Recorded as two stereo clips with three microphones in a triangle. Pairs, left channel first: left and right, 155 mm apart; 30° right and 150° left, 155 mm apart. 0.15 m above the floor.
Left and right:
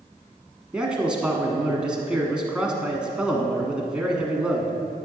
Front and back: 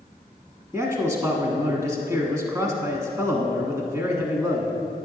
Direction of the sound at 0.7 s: 165° right.